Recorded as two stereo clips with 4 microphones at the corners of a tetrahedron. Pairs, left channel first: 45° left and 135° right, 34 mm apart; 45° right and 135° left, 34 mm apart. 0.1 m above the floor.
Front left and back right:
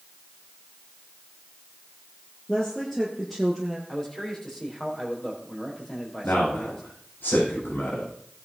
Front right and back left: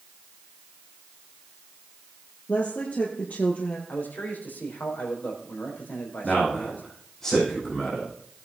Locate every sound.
2.5 s a woman speaking: 30° right, 2 m; by 3.8 s 60° right, 1.9 m
3.9 s a man speaking: 25° right, 4.5 m
6.2 s a man speaking: 30° left, 7.5 m